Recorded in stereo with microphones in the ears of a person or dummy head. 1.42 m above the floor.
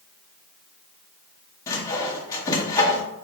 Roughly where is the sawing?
Centre.